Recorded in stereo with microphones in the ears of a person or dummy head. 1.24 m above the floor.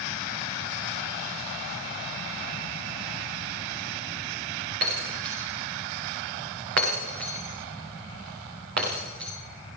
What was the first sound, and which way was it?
Breaking glass, 55° right (ahead or behind).